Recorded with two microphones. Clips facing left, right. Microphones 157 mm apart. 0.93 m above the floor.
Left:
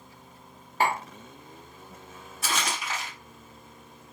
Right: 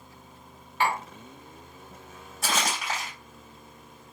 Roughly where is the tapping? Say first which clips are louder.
Left 1 dB; left.